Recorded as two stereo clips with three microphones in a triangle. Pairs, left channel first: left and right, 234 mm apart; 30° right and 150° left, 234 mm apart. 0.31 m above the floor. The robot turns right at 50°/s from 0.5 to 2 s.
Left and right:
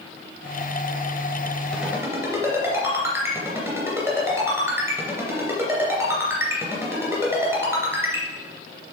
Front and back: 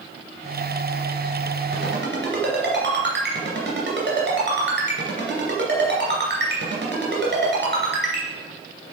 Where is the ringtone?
175° left, 2.5 m; by 8.2 s 170° right, 2.5 m.